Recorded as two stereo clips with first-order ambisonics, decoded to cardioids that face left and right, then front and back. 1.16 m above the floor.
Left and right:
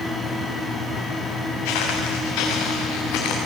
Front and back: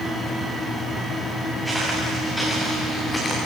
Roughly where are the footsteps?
Left.